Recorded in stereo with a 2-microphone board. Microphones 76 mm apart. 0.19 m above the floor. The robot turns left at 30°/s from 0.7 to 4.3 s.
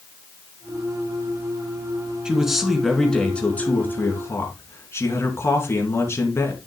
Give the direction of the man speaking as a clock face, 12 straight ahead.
6 o'clock.